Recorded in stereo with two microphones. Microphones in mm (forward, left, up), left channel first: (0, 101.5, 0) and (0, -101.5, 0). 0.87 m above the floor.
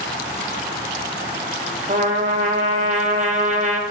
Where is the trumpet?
40° right (ahead or behind), 0.9 m.